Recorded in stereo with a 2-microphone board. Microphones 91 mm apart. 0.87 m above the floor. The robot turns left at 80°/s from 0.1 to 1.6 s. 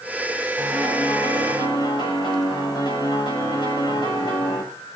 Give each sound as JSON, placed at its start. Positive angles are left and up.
{"t": 0.6, "sound": "a piano", "azimuth_deg": -155, "distance_m": 7.5}